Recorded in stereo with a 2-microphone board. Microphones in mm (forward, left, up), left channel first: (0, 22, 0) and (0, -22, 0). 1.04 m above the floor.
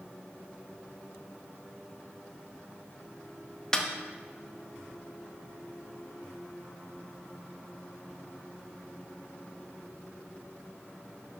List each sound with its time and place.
3.7 s a snare drum: 15° left (ahead or behind), 0.9 m